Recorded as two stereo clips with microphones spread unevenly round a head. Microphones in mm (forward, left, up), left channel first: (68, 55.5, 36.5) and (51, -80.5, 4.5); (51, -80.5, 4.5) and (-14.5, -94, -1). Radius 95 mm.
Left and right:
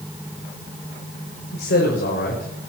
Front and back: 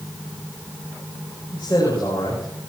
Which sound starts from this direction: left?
A man speaking, at 1.5 s.